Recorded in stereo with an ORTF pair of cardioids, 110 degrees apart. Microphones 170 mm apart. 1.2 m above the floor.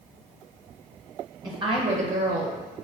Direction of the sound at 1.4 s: 20° right.